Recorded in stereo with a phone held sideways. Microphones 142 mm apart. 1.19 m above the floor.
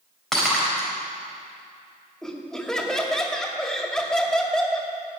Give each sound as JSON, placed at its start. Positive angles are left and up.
{"t": 0.3, "sound": "breaking glass", "side_deg": 0, "distance_m": 4.0}
{"t": 2.2, "sound": "laughter", "side_deg": 5, "distance_m": 2.0}